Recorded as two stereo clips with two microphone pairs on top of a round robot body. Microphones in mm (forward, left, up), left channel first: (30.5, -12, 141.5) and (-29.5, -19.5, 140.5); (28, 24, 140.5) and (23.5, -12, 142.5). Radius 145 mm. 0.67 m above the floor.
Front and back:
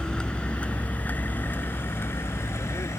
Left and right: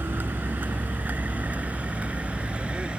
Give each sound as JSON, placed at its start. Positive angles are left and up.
{"t": 0.0, "sound": "a vehicle", "azimuth_deg": -70}